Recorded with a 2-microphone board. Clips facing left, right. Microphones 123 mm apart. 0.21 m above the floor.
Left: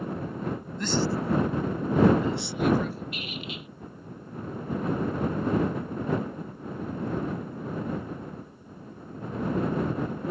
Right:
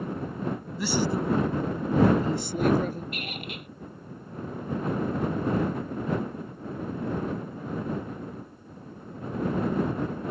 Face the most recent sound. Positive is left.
turn(degrees=-55)  # may be behind; listen again after turning